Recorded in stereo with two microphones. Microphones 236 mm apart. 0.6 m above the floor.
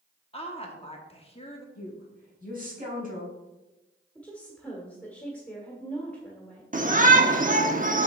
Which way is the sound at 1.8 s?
35° right (ahead or behind).